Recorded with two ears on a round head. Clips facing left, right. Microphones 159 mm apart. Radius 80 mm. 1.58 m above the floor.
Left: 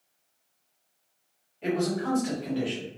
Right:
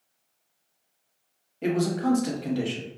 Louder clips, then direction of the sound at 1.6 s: Right 3 dB; 55° right (ahead or behind).